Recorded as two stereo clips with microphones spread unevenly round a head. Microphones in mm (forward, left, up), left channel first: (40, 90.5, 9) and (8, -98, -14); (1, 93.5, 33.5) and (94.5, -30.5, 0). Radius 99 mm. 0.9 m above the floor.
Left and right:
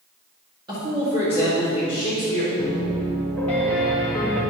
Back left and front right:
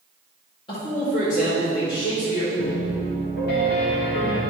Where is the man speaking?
165° right, 1.9 m; by 2.5 s 160° left, 2.5 m.